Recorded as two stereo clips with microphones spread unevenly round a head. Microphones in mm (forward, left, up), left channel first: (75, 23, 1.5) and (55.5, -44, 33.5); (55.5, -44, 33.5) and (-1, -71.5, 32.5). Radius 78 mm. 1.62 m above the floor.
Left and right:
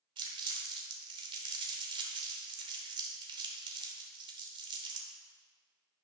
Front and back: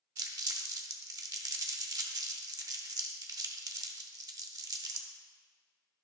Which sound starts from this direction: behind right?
Crumpling, at 0.2 s.